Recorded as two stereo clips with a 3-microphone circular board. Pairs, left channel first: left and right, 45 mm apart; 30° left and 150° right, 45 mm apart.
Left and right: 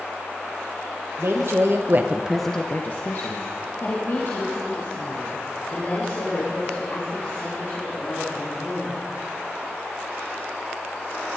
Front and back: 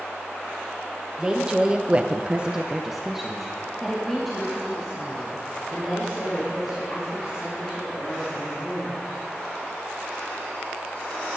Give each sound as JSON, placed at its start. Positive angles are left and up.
{"t": 1.2, "sound": "a woman speaking", "azimuth_deg": -75, "distance_m": 1.7}